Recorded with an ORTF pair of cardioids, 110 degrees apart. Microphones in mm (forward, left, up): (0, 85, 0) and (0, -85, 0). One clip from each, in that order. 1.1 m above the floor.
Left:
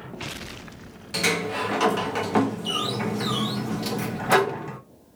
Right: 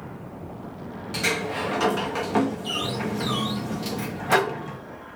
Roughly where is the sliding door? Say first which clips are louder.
Left 1 dB; ahead.